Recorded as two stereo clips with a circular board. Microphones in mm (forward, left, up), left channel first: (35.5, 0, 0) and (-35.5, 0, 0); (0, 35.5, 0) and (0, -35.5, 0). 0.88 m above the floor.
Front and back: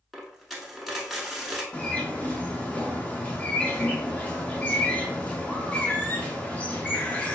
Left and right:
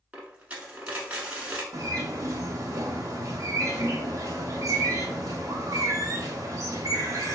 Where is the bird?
65° right, 0.6 m.